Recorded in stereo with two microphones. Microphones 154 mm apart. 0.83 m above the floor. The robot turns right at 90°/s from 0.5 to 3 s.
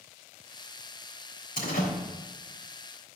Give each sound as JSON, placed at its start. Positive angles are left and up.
{"t": 1.6, "sound": "a door slam", "azimuth_deg": 65, "distance_m": 3.0}